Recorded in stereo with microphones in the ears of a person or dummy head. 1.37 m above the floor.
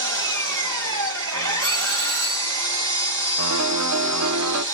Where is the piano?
80° right, 0.6 m.